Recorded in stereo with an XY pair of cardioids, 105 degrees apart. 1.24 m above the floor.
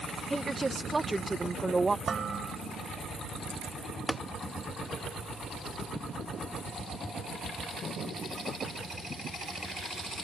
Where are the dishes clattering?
40° right.